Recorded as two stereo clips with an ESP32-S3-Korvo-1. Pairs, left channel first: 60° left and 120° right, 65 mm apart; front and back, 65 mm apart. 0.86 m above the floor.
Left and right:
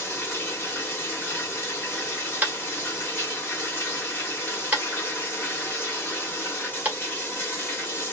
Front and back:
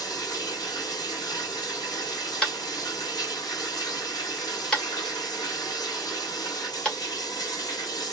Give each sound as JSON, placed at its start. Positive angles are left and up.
{"t": 0.0, "sound": "running water", "azimuth_deg": 0, "distance_m": 1.2}
{"t": 2.4, "sound": "tapping", "azimuth_deg": -70, "distance_m": 1.1}